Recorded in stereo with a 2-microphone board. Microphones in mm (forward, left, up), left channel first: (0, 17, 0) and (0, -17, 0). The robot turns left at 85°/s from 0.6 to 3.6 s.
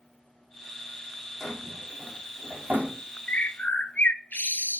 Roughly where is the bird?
Left.